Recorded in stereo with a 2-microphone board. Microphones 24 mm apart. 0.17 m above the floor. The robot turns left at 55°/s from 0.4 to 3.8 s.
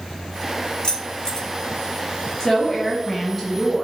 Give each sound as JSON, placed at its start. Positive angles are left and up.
{"t": 0.8, "sound": "keys jangling", "side_deg": 40, "distance_m": 1.0}
{"t": 2.4, "sound": "a woman speaking", "side_deg": 20, "distance_m": 1.1}